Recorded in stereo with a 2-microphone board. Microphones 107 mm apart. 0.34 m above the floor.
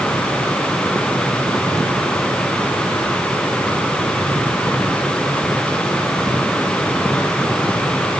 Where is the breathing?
No breathing in this recording.